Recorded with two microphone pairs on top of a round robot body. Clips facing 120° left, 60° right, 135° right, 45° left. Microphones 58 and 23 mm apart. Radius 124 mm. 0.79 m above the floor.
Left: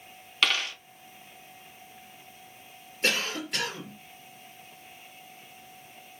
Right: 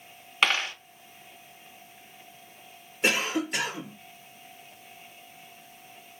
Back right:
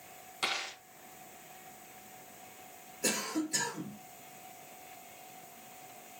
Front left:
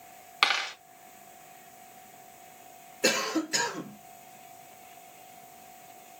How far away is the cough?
About 1.4 m.